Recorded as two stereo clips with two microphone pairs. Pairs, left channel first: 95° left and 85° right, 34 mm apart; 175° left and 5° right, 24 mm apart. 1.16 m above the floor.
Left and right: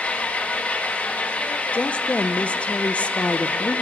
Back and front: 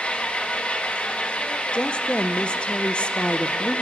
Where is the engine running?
140° left, 1.3 m.